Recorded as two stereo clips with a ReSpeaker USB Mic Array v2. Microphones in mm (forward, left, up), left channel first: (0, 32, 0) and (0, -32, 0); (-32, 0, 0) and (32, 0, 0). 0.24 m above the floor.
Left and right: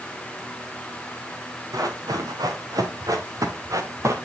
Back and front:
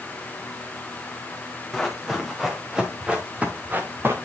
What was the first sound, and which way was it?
Running footsteps, 90° right.